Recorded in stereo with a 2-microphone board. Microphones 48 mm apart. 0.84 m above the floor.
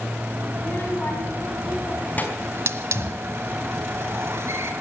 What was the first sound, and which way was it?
A child speaking, 35° left (ahead or behind).